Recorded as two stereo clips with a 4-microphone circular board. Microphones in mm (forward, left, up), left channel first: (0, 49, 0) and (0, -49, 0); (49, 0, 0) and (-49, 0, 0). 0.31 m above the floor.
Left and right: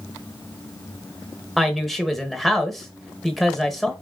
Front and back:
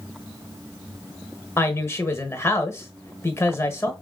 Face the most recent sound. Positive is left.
turn(degrees=5)